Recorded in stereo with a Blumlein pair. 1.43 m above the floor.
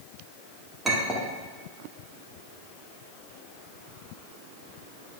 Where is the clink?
10° right, 1.5 m.